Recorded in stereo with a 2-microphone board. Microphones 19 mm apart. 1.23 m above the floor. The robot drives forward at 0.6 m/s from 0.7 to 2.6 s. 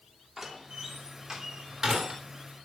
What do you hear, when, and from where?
0.4 s a door slam: 40° right (ahead or behind), 3.5 m; by 2.2 s 50° right (ahead or behind), 3 m